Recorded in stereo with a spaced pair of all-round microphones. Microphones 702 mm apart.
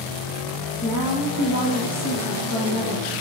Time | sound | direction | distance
0.8 | a woman speaking | 25° left (ahead or behind) | 1.8 m